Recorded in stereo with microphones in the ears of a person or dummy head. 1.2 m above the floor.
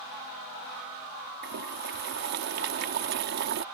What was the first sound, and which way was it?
Boiling, 60° right (ahead or behind).